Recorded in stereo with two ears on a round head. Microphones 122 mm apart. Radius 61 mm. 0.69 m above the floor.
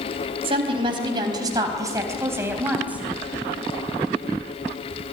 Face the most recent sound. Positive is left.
turn(degrees=-10)  # may be behind; listen again after turning